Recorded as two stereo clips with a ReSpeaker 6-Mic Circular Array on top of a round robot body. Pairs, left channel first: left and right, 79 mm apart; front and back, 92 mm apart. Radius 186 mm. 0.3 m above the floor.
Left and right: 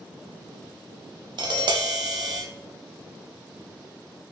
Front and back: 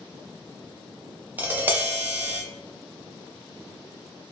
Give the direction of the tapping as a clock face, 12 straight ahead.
4 o'clock.